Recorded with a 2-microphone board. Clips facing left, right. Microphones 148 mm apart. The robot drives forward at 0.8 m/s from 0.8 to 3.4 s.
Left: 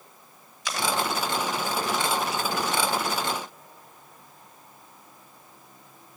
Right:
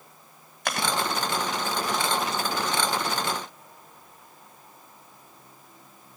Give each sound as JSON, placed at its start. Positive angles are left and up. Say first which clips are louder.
{"t": 0.7, "sound": "chewing", "louder": "even", "side_deg": -60, "distance_m": 2.0}